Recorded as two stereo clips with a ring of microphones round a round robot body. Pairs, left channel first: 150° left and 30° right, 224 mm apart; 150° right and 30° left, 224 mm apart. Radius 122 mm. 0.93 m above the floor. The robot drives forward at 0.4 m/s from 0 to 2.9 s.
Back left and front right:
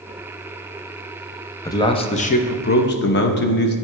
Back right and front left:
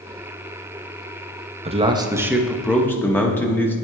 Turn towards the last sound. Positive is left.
turn(degrees=130)